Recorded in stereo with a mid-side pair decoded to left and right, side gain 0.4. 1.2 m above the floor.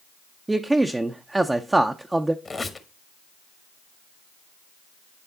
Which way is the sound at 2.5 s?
30° left.